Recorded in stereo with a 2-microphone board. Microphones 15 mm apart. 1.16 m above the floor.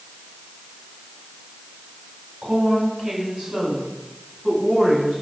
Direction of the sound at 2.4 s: 70° right (ahead or behind).